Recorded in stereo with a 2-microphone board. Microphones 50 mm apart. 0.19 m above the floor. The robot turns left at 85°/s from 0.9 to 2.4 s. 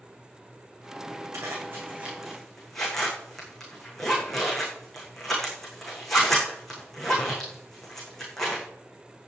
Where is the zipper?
85° right, 7 m; by 8.6 s 5° left (ahead or behind), 7 m.